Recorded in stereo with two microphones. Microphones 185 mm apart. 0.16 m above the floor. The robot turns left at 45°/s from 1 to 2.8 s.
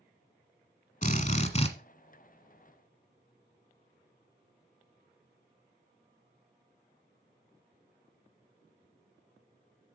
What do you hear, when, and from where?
1.0 s a drill: 85° left, 1.3 m; by 1.7 s 55° left, 1.3 m